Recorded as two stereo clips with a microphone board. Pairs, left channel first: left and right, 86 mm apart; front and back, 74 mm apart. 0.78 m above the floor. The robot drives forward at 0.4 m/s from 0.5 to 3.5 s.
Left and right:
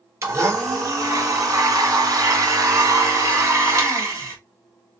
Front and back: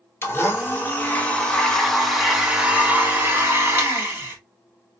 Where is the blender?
50° right, 1.1 m; by 4.4 s 130° right, 1.1 m.